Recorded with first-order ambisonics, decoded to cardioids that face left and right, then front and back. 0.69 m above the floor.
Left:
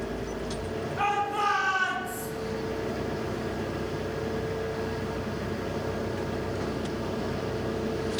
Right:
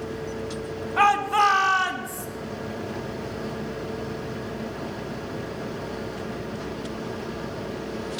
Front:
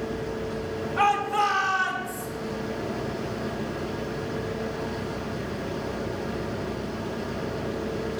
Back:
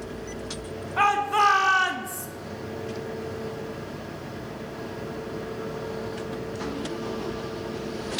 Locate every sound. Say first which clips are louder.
1.0 s a shout: right 8 dB, back 2 dB; 110° right, 1.6 m; by 2.3 s 155° right, 1.4 m